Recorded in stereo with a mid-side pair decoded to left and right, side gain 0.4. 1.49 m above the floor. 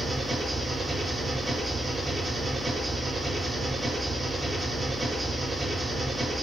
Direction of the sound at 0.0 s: 15° right.